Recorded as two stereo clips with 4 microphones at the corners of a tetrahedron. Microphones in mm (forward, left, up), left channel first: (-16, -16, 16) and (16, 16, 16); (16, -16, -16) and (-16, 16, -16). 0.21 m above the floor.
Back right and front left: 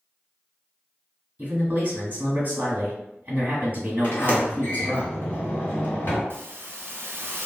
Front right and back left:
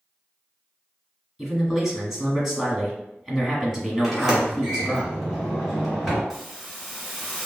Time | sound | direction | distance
1.4 | a man speaking | 65° left | 1.4 m
4.0 | a sliding door | 150° right | 1.6 m
6.3 | a hiss | 50° left | 0.7 m